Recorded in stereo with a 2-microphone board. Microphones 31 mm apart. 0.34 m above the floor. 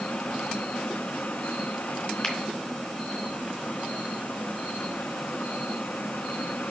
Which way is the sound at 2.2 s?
10° left (ahead or behind).